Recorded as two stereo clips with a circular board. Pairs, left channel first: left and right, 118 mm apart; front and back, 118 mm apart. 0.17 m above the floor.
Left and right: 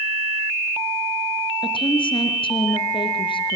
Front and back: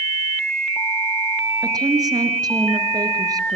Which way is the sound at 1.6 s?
125° left.